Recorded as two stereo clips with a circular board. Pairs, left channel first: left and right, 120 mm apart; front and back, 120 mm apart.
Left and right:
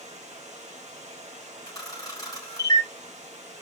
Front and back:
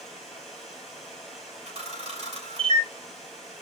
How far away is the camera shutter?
About 4 m.